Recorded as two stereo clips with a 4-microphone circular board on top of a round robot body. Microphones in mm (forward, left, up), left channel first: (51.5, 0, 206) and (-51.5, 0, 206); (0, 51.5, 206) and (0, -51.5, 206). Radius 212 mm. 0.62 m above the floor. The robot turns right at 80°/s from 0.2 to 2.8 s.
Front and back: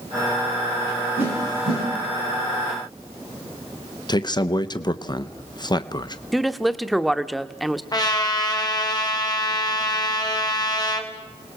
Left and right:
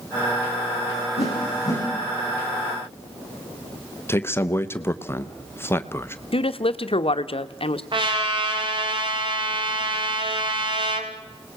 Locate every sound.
1.2 s a whoosh: 105° left, 9 m; by 1.8 s 160° left, 9 m
4.1 s a man speaking: 30° left, 1.0 m
6.3 s a woman speaking: 90° left, 1.1 m
7.9 s a trumpet: 50° right, 2.5 m